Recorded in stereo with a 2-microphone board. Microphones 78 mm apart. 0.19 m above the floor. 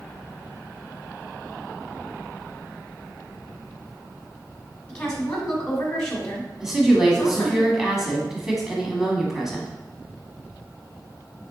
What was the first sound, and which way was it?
A woman speaking, 10° left (ahead or behind).